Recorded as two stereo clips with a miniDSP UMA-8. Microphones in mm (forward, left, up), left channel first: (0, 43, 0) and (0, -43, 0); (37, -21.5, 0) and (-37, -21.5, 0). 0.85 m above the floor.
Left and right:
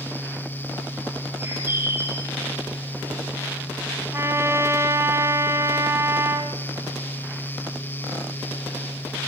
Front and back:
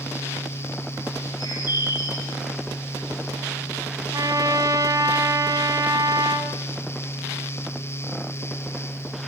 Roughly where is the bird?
Ahead right.